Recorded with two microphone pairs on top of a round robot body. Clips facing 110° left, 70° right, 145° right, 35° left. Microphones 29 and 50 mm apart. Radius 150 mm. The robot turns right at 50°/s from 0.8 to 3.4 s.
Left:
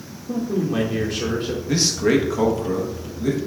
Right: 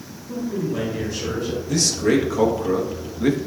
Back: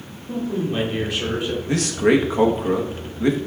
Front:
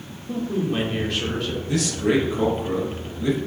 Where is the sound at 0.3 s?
110° left, 2.5 m; by 1.6 s 150° left, 2.5 m.